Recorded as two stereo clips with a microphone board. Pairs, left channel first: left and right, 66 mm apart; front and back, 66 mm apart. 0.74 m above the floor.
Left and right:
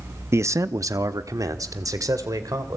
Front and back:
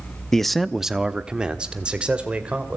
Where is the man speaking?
80° right, 0.7 m; by 2.8 s 110° right, 3 m.